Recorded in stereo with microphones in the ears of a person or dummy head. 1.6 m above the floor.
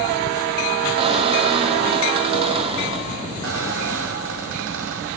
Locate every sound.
1.0 s a squeak: 30° right (ahead or behind), 1.8 m
3.4 s a squeak: 70° right (ahead or behind), 4 m